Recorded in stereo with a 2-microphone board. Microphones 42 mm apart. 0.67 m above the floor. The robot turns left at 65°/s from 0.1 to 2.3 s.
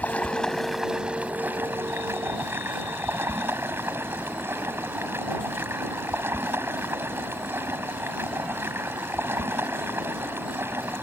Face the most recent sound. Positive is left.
turn(degrees=-105)